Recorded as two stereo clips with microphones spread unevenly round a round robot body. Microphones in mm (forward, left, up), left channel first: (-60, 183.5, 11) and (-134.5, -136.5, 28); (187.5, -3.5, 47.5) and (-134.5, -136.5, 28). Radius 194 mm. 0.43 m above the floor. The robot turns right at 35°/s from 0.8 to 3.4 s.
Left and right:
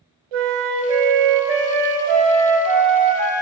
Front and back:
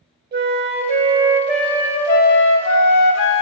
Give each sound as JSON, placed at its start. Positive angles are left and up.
{"t": 0.3, "sound": "a flute", "azimuth_deg": -95, "distance_m": 0.5}